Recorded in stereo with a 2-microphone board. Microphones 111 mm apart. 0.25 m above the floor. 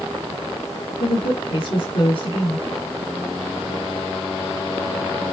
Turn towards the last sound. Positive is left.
turn(degrees=50)  # may be behind; listen again after turning